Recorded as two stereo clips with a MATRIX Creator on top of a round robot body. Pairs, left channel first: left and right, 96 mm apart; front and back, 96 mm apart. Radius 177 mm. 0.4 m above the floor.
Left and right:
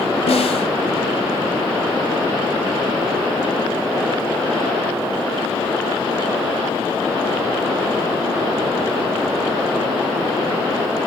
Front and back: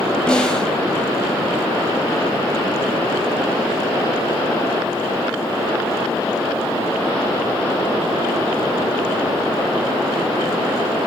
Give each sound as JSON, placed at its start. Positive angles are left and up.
{"t": 0.3, "sound": "a snare drum", "azimuth_deg": 80, "distance_m": 1.4}